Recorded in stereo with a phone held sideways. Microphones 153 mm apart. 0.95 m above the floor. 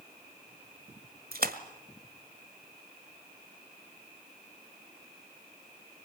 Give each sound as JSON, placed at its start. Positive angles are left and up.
{"t": 1.3, "sound": "a splash", "side_deg": -75, "distance_m": 1.6}